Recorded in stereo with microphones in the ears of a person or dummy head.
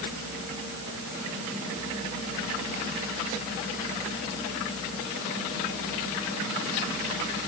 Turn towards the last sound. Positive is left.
No sound to turn to.